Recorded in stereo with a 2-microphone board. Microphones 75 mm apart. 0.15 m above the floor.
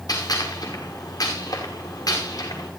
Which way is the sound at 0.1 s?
60° left (ahead or behind).